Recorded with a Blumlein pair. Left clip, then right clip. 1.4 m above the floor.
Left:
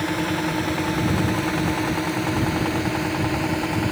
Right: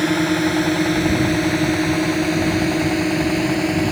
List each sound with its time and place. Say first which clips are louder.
0.0 s a drone: right 5 dB; 20° right